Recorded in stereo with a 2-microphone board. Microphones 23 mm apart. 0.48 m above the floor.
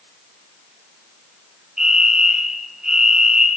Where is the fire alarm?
20° right (ahead or behind), 4 m.